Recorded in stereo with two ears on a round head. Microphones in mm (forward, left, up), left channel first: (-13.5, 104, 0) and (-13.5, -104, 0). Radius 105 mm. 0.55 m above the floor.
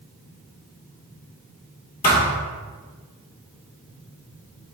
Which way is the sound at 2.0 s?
40° left (ahead or behind).